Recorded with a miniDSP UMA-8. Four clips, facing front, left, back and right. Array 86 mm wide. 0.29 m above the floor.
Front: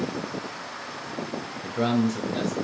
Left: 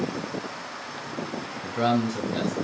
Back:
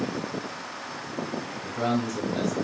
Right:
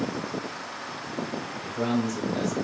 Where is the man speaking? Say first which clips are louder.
Left 3 dB, front 3 dB; 75° left, 1.2 m.